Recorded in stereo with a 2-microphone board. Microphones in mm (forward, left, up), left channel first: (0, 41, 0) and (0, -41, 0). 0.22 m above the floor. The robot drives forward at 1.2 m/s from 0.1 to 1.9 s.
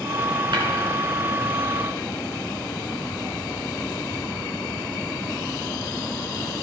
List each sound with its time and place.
0.5 s tapping: 65° right (ahead or behind), 2.5 m